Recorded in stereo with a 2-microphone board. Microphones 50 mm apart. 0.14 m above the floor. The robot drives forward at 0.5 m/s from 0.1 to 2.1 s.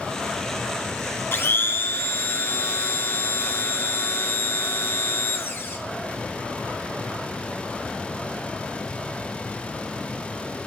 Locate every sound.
1.3 s a blender: 55° left (ahead or behind), 1.2 m; by 5.8 s 50° left (ahead or behind), 1.3 m